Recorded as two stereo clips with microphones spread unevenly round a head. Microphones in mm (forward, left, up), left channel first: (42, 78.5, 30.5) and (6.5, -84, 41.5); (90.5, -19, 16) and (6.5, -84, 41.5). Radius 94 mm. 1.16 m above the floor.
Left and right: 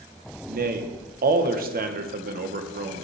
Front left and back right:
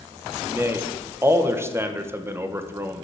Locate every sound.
0.5 s a man speaking: 70° right, 0.9 m